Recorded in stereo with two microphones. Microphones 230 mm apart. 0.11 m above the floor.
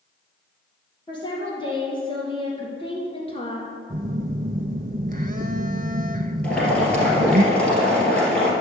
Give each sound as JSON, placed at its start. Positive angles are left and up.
{"t": 1.1, "sound": "a woman speaking", "side_deg": 20, "distance_m": 3.5}
{"t": 3.9, "sound": "a phone buzzing", "side_deg": -35, "distance_m": 0.6}
{"t": 6.4, "sound": "boiling", "side_deg": 5, "distance_m": 2.5}